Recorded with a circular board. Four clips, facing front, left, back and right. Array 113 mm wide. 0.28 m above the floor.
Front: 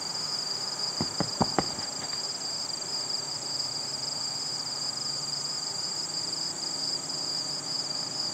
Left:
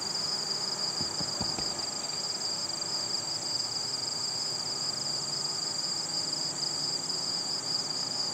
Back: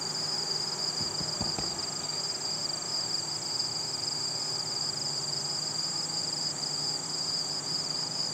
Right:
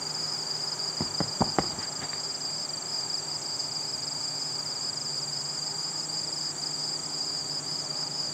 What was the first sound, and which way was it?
Running footsteps, 35° right.